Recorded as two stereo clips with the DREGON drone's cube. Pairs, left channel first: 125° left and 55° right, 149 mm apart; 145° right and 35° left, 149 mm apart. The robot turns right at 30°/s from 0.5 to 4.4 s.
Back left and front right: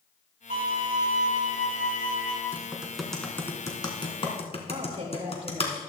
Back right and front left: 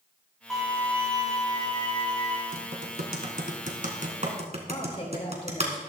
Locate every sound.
0.5 s a violin: 55° right, 4.5 m; by 2.4 s straight ahead, 4.5 m
2.5 s typing on a keyboard: 20° left, 1.8 m; by 5.7 s 75° left, 1.8 m
4.7 s a woman speaking: 100° right, 3.5 m